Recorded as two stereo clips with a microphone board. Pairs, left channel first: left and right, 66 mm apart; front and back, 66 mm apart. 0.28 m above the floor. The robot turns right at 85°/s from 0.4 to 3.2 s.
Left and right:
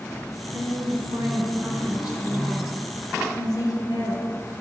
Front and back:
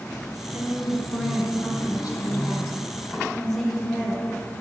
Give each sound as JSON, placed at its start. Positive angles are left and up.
{"t": 0.5, "sound": "a woman speaking", "azimuth_deg": -135, "distance_m": 3.0}